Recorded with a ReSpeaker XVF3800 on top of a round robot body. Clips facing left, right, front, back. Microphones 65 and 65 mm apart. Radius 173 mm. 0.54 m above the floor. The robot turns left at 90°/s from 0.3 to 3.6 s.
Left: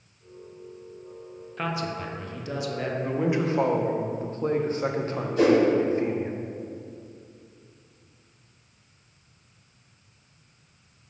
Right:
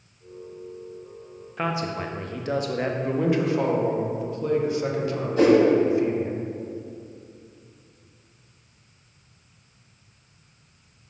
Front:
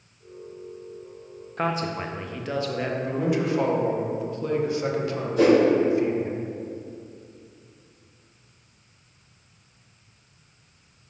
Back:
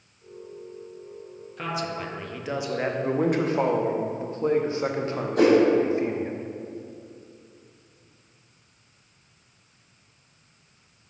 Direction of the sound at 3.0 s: 175° right.